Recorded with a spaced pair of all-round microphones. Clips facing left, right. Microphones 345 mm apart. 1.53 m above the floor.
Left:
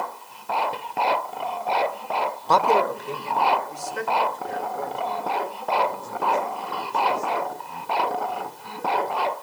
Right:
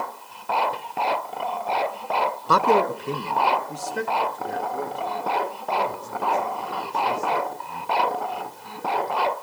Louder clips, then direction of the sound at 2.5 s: Right 1 dB; 15° right (ahead or behind).